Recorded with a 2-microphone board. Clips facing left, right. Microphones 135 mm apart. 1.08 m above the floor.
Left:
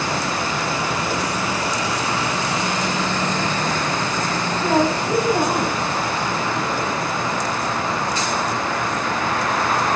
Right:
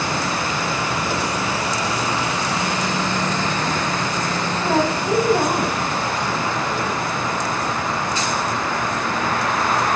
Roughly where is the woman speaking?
Centre.